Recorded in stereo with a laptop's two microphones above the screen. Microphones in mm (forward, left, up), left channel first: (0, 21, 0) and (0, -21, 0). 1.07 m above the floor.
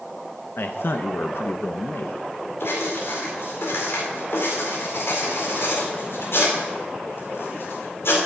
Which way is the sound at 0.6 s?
60° left (ahead or behind).